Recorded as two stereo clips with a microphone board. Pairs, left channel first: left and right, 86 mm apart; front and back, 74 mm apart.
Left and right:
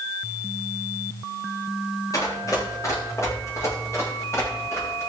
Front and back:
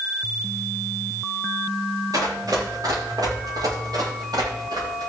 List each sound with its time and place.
2.1 s running footsteps: 140° left, 7 m; by 5.1 s 150° left, 8.5 m